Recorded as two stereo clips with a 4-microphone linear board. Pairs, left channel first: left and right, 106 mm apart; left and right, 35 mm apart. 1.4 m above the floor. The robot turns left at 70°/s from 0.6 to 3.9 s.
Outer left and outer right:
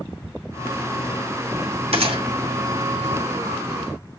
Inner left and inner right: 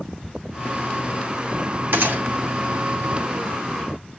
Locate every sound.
1.9 s a gunshot: 75° right (ahead or behind), 2.5 m; by 2.2 s 55° right (ahead or behind), 2.5 m